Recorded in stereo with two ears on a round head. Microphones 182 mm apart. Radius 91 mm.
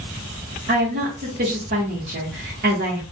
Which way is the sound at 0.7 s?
45° right (ahead or behind).